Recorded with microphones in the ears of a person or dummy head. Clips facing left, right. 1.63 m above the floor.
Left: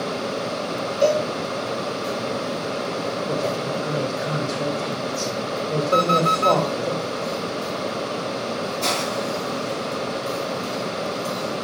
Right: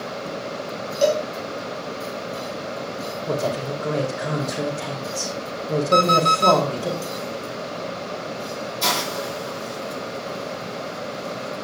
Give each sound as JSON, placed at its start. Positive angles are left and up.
{"t": 1.0, "sound": "a cowbell", "side_deg": -45, "distance_m": 4.5}
{"t": 3.3, "sound": "a woman speaking", "side_deg": -80, "distance_m": 4.5}
{"t": 5.9, "sound": "an alarm clock", "side_deg": -45, "distance_m": 2.5}
{"t": 8.8, "sound": "a hiss", "side_deg": -50, "distance_m": 8.0}